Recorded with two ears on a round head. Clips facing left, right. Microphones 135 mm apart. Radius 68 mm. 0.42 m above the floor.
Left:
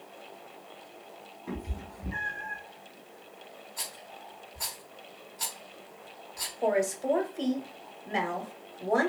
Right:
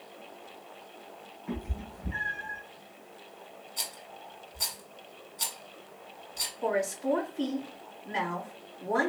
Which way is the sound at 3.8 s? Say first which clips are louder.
Even; 20° right (ahead or behind).